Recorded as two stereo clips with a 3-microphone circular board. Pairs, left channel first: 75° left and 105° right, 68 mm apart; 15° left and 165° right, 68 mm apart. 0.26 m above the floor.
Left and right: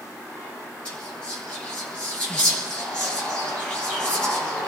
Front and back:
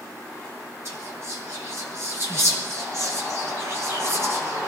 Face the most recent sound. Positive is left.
turn(degrees=145)